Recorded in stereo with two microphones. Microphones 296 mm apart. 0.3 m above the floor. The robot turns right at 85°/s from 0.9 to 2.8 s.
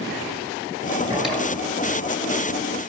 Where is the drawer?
15° right, 2.5 m; by 1.5 s 20° left, 2.5 m.